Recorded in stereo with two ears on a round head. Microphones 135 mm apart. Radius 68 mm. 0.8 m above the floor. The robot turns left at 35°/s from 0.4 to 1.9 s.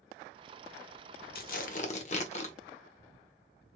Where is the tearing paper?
65° left (ahead or behind), 0.9 m; by 2.5 s 45° left (ahead or behind), 0.9 m.